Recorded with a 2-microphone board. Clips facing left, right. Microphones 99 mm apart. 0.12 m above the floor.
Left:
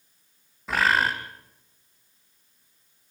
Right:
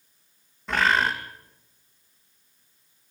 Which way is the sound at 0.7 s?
5° left (ahead or behind).